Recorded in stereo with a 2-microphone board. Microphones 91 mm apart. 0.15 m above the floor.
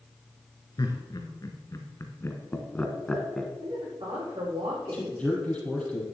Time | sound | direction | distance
0.8 | laughter | 50° left (ahead or behind) | 2.5 m
3.6 | a woman speaking | 80° right | 7.5 m
4.9 | a man speaking | 15° left (ahead or behind) | 4.5 m